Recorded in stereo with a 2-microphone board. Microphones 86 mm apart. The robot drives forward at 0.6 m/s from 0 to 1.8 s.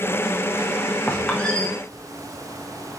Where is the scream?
No scream in this recording.